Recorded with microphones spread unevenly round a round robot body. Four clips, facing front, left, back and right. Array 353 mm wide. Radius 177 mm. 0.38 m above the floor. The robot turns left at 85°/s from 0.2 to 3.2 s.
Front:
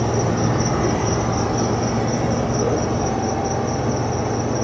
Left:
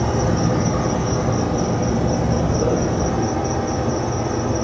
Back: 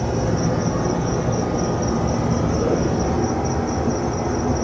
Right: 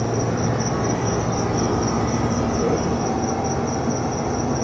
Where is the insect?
65° left, 1.4 m; by 4.6 s 170° left, 1.4 m.